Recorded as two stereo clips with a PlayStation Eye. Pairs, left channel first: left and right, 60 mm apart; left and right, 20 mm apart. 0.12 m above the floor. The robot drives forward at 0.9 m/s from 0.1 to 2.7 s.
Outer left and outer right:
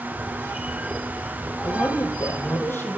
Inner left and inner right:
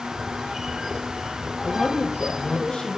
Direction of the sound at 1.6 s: 40° left (ahead or behind).